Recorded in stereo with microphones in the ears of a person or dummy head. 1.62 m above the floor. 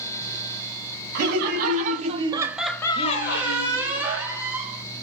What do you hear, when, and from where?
1.1 s laughter: 60° right (ahead or behind), 1.3 m; by 4.0 s 70° left (ahead or behind), 1.0 m
3.0 s a squeak: 15° right (ahead or behind), 0.9 m